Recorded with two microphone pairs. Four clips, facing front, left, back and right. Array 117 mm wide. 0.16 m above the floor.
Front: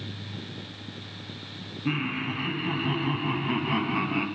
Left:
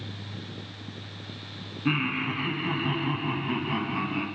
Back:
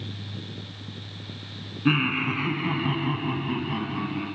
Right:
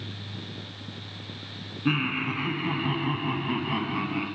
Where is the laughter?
165° right, 1.6 m; by 4.3 s 5° right, 1.5 m.